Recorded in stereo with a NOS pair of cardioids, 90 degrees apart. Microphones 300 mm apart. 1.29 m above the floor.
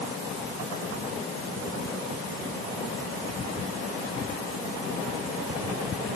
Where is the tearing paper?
I don't hear tearing paper.